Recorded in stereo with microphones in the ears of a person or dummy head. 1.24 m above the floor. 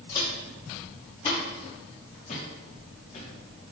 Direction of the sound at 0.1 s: 25° left (ahead or behind).